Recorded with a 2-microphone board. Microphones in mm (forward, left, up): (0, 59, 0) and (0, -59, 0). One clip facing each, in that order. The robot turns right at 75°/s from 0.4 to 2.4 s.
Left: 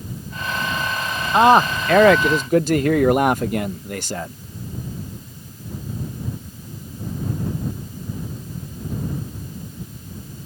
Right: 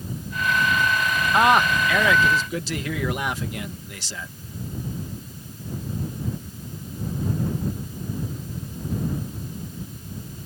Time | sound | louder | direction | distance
1.3 | a man speaking | left 5 dB | 25° left | ?